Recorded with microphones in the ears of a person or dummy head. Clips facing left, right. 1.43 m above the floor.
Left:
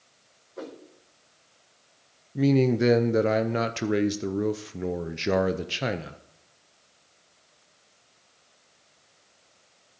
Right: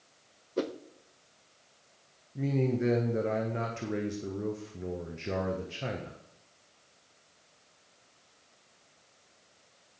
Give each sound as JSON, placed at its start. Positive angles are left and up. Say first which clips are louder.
{"t": 0.6, "sound": "a whoosh", "louder": "right 7 dB", "side_deg": -45, "distance_m": 0.7}
{"t": 2.4, "sound": "a man speaking", "louder": "left 8 dB", "side_deg": 70, "distance_m": 0.6}